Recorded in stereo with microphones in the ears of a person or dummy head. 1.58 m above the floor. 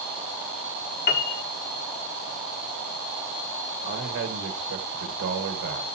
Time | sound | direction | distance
1.1 | a piano | 50° left (ahead or behind) | 1.1 m
3.8 | a man speaking | 60° right (ahead or behind) | 1.6 m